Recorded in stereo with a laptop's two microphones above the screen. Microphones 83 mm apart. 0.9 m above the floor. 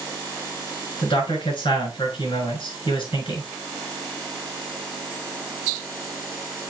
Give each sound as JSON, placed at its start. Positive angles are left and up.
{"t": 1.0, "sound": "a man speaking", "side_deg": 85, "distance_m": 5.5}